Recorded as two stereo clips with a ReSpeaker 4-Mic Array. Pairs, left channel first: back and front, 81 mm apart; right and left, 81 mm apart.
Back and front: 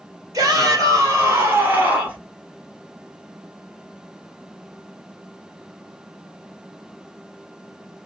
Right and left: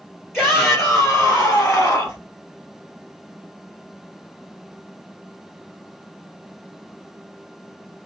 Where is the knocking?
I don't hear knocking.